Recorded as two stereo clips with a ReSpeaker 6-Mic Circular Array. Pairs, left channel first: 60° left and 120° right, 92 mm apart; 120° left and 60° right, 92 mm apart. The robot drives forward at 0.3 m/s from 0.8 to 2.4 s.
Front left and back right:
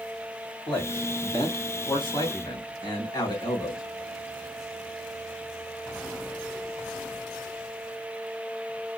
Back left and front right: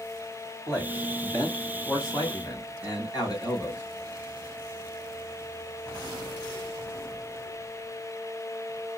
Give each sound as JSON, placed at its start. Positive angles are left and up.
{"t": 0.7, "sound": "a man speaking", "azimuth_deg": 70, "distance_m": 2.5}